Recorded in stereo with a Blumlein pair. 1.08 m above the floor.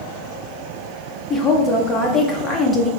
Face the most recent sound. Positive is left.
turn(degrees=20)